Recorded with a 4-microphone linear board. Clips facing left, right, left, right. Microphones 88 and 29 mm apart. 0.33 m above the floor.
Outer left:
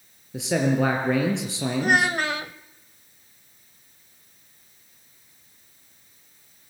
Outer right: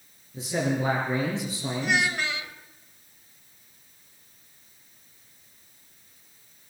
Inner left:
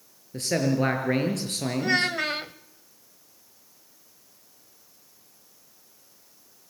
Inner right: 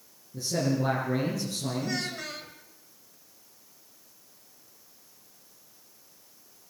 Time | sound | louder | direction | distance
0.3 | a man speaking | outer left 5 dB, inner left 4 dB | 80° left | 5.5 m
1.8 | a child speaking | outer left 5 dB, inner left 9 dB | 50° left (ahead or behind) | 0.8 m